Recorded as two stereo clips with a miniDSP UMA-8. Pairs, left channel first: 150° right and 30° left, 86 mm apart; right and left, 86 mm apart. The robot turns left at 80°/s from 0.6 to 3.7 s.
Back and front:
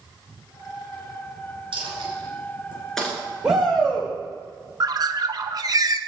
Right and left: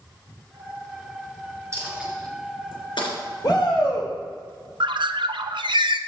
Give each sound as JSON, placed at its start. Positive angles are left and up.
{"t": 1.7, "sound": "a dropped coin", "azimuth_deg": 35, "distance_m": 3.0}
{"t": 3.4, "sound": "a shout", "azimuth_deg": -50, "distance_m": 2.5}
{"t": 4.8, "sound": "a bird", "azimuth_deg": 70, "distance_m": 0.5}